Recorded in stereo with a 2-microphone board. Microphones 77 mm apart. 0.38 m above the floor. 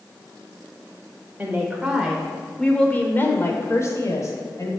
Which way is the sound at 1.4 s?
25° right (ahead or behind).